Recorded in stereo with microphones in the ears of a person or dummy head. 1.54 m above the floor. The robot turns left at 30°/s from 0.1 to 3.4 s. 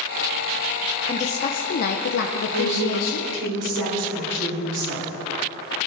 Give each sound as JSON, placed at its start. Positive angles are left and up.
{"t": 1.1, "sound": "a woman speaking", "azimuth_deg": 150, "distance_m": 0.7}
{"t": 2.5, "sound": "a woman speaking", "side_deg": -55, "distance_m": 5.5}